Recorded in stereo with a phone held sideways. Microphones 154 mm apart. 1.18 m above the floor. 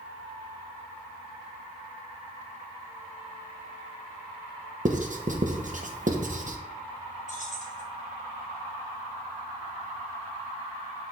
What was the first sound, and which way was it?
Writing, 55° right (ahead or behind).